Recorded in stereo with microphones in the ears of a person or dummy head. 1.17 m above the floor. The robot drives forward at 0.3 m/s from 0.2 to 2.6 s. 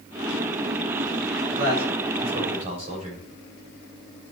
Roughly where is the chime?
I don't hear a chime.